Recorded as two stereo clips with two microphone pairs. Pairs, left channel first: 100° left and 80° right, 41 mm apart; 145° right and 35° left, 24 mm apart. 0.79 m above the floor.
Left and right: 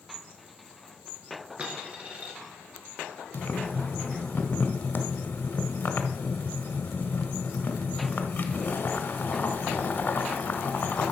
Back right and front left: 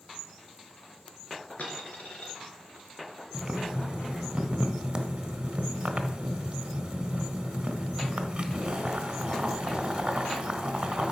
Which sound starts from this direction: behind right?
A dropped coin, at 1.6 s.